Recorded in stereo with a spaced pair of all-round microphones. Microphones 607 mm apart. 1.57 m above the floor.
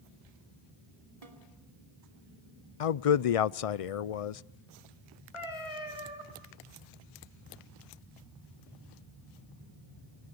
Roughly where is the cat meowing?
Left.